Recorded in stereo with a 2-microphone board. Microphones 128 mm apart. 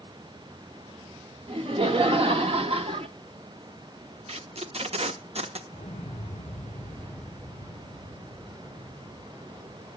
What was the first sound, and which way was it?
Laughter, 50° right (ahead or behind).